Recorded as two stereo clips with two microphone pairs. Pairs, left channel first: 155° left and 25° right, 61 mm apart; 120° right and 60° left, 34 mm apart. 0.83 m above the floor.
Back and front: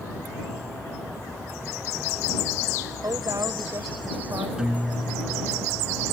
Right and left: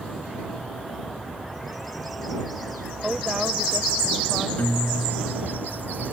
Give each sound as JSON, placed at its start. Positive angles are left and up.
{"t": 3.0, "sound": "a woman speaking", "azimuth_deg": -10}
{"t": 4.6, "sound": "a guitar", "azimuth_deg": -100}